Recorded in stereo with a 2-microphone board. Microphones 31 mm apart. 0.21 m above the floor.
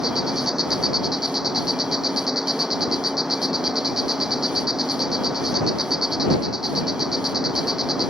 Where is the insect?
15° right (ahead or behind).